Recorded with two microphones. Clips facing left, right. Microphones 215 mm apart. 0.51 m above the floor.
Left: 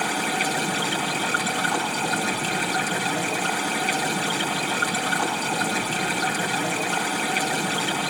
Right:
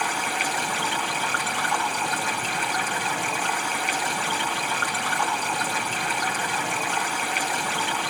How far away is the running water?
About 4 m.